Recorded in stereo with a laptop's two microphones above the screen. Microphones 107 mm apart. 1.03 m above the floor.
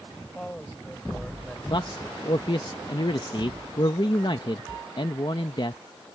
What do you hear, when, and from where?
0.2 s a man speaking: 15° left (ahead or behind); by 1.6 s 5° left (ahead or behind)
1.7 s a man speaking: 50° left (ahead or behind)